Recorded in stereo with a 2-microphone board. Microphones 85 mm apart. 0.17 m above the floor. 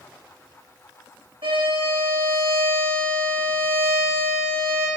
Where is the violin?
85° right, 2.5 m.